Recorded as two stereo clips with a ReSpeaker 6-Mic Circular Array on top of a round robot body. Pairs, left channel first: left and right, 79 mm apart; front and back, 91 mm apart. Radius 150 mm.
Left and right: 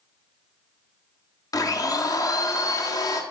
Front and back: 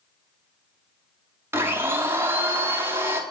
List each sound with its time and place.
1.5 s a blender: 120° left, 1.1 m